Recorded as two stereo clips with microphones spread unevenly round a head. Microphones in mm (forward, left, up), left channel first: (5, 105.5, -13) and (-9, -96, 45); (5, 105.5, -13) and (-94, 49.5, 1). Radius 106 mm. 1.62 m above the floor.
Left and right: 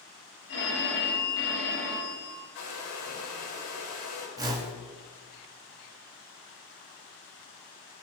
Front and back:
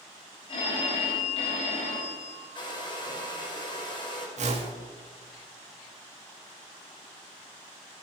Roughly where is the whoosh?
Behind.